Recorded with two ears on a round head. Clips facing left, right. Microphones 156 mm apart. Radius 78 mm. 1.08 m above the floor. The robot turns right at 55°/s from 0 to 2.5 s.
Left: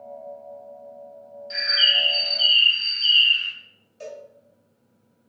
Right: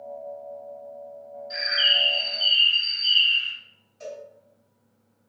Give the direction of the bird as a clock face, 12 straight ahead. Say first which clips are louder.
Left 1 dB; 11 o'clock.